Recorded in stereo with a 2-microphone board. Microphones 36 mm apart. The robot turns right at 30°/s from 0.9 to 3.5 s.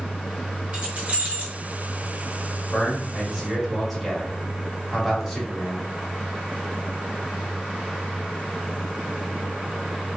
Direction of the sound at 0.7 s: 35° right (ahead or behind).